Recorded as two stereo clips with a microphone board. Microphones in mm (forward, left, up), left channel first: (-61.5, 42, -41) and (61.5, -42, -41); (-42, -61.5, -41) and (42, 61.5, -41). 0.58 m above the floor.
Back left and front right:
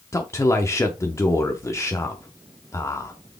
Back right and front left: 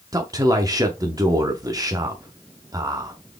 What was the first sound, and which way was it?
A man speaking, 95° left.